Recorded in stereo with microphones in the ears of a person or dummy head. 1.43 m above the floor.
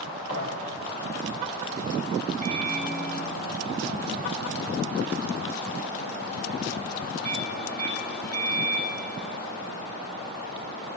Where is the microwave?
15° left (ahead or behind), 3 m.